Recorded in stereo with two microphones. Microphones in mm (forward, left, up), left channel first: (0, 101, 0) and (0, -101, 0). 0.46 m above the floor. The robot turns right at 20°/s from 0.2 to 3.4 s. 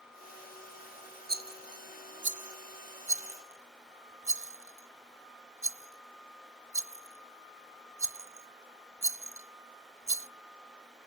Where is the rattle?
50° right (ahead or behind), 0.7 m; by 10.3 s 80° right, 0.7 m.